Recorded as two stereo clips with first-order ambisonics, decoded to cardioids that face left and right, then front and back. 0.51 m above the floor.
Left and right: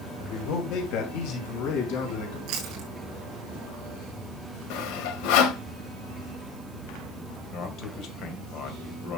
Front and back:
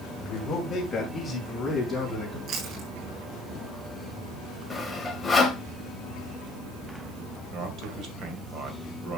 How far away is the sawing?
About 1.4 m.